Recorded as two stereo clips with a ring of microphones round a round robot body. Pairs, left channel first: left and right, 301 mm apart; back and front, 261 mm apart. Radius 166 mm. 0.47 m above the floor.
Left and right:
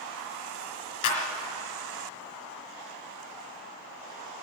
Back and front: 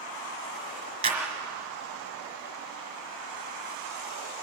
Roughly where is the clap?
Left.